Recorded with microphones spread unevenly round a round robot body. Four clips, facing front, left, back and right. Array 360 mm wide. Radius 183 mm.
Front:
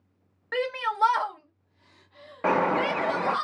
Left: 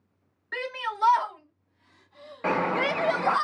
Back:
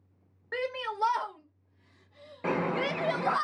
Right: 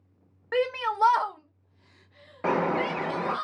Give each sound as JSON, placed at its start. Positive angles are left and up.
{"t": 0.5, "sound": "a shout", "azimuth_deg": -60, "distance_m": 1.3}
{"t": 2.4, "sound": "a bird", "azimuth_deg": -50, "distance_m": 0.6}